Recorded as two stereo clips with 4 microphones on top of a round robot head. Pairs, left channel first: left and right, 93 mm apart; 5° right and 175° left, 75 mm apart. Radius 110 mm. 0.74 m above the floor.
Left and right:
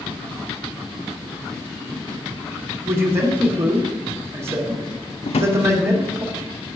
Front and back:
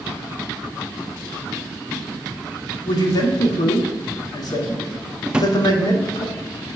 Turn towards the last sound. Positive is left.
turn(degrees=95)